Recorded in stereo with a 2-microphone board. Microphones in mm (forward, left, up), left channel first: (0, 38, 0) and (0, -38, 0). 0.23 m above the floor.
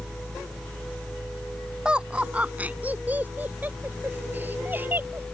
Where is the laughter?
10° right (ahead or behind); by 5.2 s 25° right (ahead or behind).